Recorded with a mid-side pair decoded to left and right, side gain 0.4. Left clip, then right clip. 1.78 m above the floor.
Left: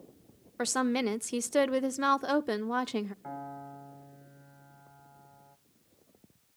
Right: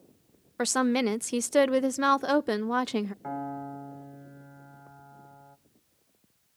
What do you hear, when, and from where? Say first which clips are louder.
0.6 s a woman speaking: right 4 dB; 35° right, 0.5 m
3.2 s a piano: right 6 dB; 55° right, 1.5 m